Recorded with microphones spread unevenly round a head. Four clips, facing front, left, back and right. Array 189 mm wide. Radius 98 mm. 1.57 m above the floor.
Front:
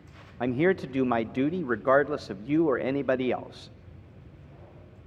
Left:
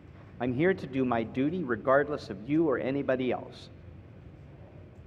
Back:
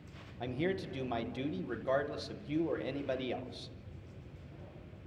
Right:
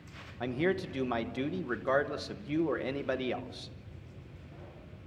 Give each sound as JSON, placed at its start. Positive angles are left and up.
{"t": 0.4, "sound": "a man speaking", "azimuth_deg": 20, "distance_m": 1.0}